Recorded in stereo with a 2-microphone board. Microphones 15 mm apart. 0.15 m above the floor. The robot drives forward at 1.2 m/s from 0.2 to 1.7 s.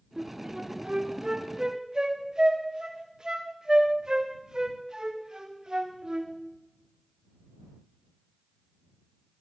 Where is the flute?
55° right (ahead or behind), 5.5 m; by 6.3 s 45° right (ahead or behind), 6.5 m.